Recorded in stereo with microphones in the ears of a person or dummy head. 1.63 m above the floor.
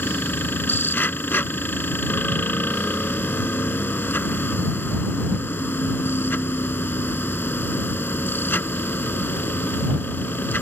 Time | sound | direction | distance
0.0 | a machine running | 10° left (ahead or behind) | ?